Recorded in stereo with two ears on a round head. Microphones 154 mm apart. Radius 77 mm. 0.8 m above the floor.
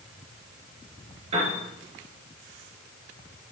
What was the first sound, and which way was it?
A piano, 35° right (ahead or behind).